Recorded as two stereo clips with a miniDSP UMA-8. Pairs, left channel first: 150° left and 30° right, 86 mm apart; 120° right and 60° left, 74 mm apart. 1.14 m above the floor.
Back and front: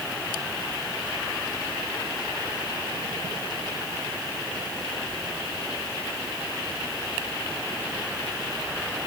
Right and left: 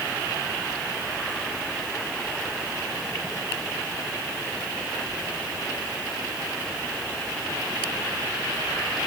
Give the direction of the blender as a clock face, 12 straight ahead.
I don't hear a blender.